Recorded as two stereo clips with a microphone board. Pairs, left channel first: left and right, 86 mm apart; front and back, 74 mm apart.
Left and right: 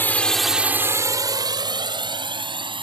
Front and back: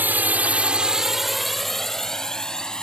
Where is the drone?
135° left; by 2.8 s 80° right.